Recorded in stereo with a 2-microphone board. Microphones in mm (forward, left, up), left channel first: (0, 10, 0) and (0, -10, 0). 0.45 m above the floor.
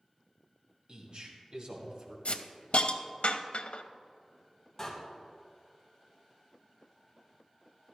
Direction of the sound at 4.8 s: 15° left (ahead or behind).